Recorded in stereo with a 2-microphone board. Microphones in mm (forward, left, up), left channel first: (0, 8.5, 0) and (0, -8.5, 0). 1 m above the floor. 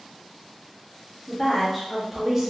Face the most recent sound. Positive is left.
turn(degrees=-25)  # may be behind; listen again after turning